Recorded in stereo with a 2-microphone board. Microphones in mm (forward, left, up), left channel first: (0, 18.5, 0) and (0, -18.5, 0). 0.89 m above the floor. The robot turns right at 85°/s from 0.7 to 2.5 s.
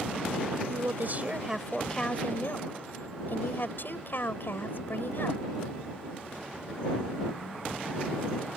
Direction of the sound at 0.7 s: 85° right.